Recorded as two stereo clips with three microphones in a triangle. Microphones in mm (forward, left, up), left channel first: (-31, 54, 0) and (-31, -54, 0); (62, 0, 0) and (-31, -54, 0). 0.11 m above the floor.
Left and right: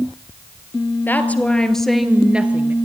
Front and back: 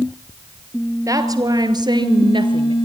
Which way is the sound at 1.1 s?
160° left.